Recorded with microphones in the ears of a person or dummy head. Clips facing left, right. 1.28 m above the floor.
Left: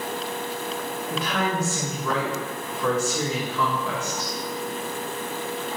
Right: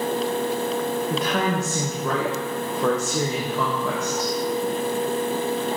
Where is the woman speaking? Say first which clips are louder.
Even; 40° right (ahead or behind), 0.5 m.